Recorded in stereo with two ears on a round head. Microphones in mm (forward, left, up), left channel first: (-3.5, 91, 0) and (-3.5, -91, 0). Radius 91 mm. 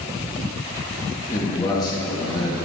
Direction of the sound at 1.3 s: 20° left (ahead or behind).